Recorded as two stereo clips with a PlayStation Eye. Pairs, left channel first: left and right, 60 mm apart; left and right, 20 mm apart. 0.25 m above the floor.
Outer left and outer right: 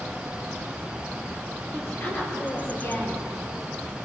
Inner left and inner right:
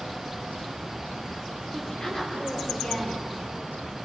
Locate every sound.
1.7 s a woman speaking: 40° left (ahead or behind), 5.5 m